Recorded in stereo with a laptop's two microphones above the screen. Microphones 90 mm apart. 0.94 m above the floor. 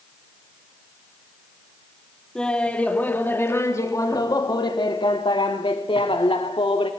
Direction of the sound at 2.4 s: 10° left (ahead or behind).